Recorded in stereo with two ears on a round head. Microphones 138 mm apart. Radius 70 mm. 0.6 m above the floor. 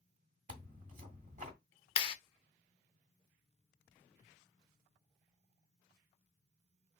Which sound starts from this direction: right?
Tearing paper, at 0.5 s.